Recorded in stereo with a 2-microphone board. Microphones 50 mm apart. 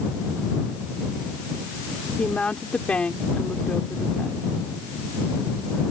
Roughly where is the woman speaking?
Left.